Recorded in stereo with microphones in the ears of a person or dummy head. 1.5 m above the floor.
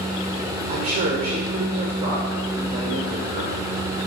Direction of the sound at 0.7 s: 30° right (ahead or behind).